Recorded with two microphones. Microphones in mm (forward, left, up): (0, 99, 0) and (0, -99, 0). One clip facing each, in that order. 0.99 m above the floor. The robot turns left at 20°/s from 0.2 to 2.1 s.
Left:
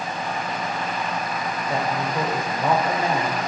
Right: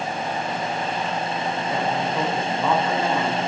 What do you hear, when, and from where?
1.7 s a woman speaking: 30° left (ahead or behind), 4 m; by 3.4 s 20° left (ahead or behind), 4 m